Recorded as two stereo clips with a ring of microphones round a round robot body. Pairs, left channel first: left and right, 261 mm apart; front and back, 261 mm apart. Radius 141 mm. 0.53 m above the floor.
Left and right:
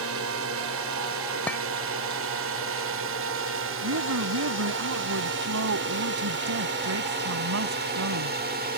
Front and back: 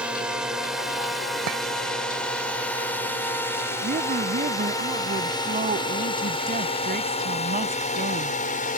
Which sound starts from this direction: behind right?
A woman speaking, at 3.8 s.